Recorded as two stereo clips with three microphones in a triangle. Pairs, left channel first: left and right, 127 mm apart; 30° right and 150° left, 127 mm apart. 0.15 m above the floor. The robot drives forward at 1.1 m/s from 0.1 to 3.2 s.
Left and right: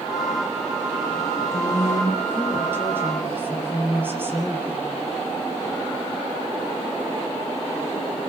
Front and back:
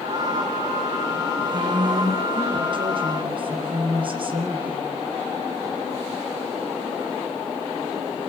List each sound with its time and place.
1.5 s a woman speaking: 155° right, 5.5 m; by 4.9 s 165° right, 7 m